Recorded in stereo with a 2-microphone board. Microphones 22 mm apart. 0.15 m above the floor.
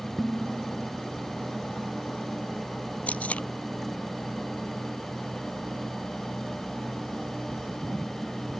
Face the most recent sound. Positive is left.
turn(degrees=70)  # may be behind; listen again after turning